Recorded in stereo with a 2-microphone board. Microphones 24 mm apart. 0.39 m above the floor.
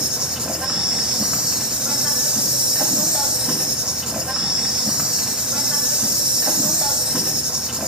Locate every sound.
0.0 s an insect: 45° right (ahead or behind), 1.1 m